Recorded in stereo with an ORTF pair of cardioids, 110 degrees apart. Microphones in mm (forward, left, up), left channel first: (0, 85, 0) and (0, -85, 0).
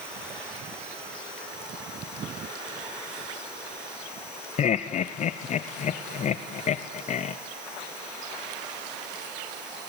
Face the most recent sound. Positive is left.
turn(degrees=45)